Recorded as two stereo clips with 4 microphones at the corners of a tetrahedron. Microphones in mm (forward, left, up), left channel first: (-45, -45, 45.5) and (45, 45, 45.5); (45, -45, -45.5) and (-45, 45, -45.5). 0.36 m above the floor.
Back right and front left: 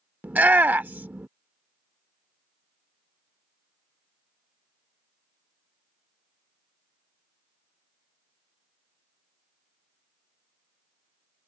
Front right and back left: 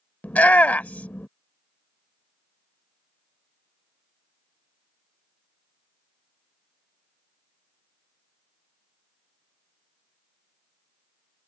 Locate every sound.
0.2 s a shout: straight ahead